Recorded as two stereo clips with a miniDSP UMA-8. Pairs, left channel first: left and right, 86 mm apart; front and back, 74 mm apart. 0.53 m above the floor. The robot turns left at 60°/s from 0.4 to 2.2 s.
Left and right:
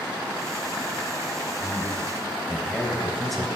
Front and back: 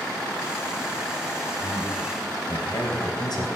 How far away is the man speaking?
About 3.5 m.